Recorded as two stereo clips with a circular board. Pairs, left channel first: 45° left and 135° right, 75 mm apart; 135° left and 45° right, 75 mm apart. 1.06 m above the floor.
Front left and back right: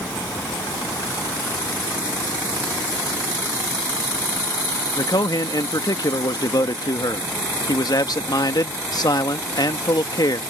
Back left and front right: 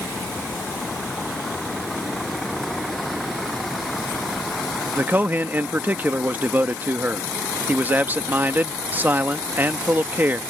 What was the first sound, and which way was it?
A man speaking, 20° left.